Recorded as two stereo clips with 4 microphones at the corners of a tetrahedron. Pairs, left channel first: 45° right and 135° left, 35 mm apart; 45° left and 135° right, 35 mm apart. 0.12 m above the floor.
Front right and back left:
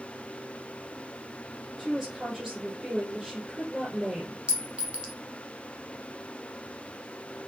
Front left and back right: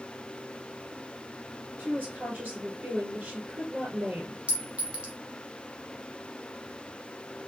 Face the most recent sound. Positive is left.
turn(degrees=-170)